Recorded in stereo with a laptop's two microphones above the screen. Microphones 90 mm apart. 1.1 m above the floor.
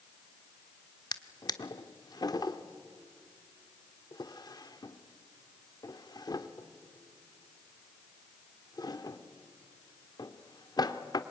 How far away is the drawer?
About 1.3 m.